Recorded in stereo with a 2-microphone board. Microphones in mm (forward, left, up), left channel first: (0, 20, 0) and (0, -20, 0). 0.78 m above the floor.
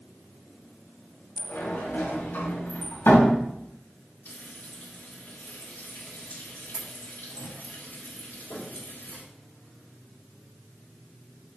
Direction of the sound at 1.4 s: 75° left (ahead or behind).